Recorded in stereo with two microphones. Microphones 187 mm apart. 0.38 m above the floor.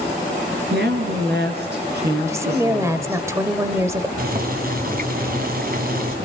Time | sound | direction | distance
0.7 | a woman speaking | 65° right (ahead or behind) | 5.5 m
2.3 | a woman speaking | 15° right (ahead or behind) | 1.6 m
4.2 | boiling | 55° right (ahead or behind) | 3 m